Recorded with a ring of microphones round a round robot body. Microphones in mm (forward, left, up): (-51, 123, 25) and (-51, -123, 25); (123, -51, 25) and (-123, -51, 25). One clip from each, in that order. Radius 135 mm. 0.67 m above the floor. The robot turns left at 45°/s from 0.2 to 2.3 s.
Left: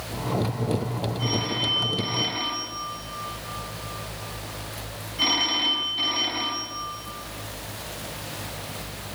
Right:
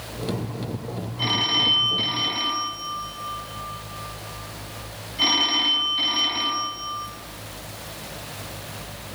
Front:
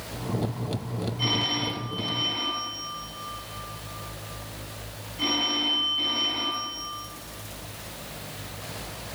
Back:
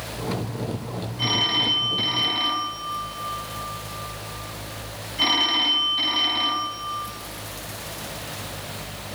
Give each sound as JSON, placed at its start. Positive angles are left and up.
{"t": 1.2, "sound": "a phone ringing", "azimuth_deg": -115, "distance_m": 3.0}